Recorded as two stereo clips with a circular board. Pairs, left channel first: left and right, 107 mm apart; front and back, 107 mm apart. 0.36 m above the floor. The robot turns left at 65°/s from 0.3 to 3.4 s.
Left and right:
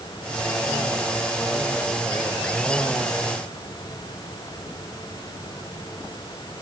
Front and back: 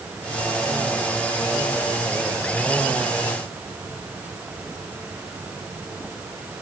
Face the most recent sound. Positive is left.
No sound to turn to.